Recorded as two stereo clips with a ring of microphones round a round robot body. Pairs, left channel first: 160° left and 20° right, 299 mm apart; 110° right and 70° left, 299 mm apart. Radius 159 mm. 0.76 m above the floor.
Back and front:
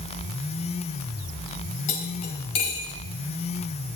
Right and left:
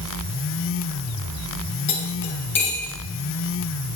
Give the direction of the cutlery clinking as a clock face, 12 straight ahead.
6 o'clock.